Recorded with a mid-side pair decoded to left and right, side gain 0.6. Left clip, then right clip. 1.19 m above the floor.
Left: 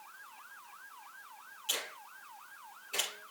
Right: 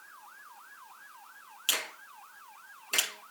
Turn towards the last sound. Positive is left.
turn(degrees=-65)